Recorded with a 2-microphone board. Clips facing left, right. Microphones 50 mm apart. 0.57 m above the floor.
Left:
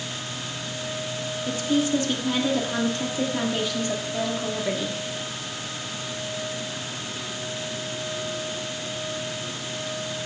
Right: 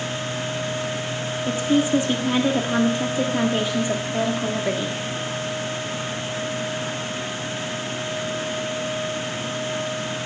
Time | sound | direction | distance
1.5 | a woman speaking | 20° right (ahead or behind) | 1.3 m